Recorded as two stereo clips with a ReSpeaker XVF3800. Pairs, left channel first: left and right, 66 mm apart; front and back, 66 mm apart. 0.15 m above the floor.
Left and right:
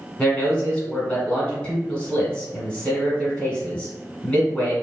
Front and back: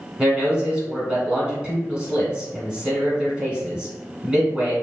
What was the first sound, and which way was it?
A man speaking, 135° left.